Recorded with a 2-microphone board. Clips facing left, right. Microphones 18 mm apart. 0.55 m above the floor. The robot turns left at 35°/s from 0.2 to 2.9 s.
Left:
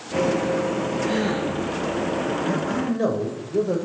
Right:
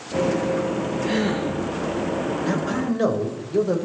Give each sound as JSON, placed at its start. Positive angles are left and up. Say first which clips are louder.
{"t": 1.1, "sound": "a gasp", "louder": "right 2 dB", "side_deg": -45, "distance_m": 8.5}
{"t": 2.4, "sound": "a man speaking", "louder": "even", "side_deg": -45, "distance_m": 2.5}